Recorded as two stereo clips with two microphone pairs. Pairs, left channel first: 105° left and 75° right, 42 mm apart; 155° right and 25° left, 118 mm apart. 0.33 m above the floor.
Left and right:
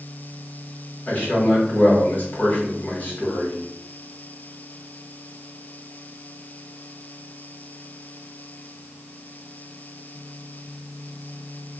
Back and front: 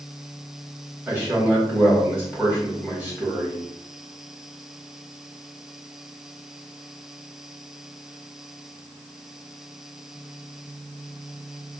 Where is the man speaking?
95° left, 2.0 m.